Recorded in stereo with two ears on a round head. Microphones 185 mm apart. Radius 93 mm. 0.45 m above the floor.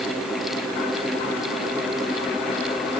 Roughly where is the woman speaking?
I don't hear a woman speaking.